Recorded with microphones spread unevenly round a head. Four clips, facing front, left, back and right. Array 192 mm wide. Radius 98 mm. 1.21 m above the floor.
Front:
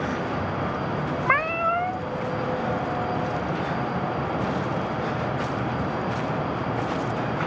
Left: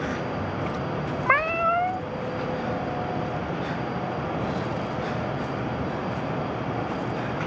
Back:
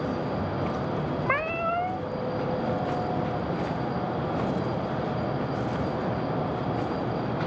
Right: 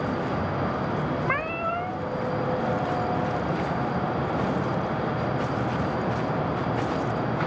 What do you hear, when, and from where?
1.3 s a cat meowing: 100° left, 0.7 m